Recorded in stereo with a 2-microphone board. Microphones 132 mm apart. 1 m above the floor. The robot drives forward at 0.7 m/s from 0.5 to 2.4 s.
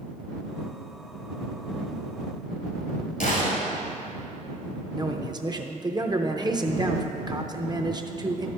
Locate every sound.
3.2 s a gunshot: 75° left (ahead or behind), 1.9 m
4.9 s a man speaking: 30° right (ahead or behind), 0.6 m